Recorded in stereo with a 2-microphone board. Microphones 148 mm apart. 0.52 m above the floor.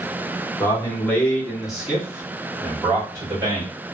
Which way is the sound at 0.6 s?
25° left (ahead or behind).